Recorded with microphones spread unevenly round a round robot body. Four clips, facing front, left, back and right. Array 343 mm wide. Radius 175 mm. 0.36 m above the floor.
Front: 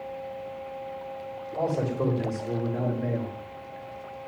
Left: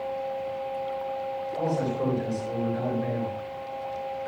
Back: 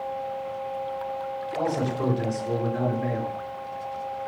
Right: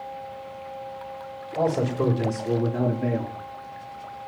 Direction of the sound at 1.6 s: 100° right.